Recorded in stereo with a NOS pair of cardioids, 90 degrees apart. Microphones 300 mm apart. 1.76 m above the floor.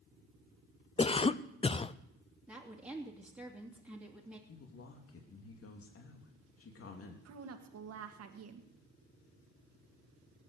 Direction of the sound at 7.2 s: 55° right.